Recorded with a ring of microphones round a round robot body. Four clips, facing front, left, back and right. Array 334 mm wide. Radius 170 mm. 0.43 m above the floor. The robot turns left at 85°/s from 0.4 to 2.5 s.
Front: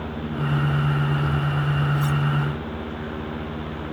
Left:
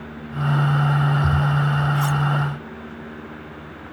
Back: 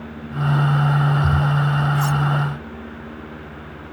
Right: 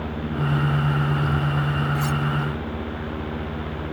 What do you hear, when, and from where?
1.9 s cutlery clinking: 170° left; by 2.2 s 145° left